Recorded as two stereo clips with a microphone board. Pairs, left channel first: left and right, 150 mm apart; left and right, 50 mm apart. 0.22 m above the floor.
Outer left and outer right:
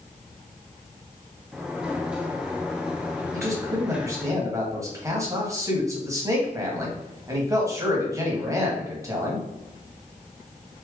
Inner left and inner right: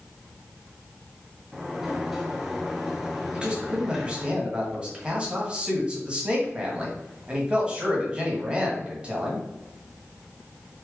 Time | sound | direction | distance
1.5 | a sliding door | 5° right (ahead or behind) | 0.9 m
3.3 | a man speaking | 20° right (ahead or behind) | 1.5 m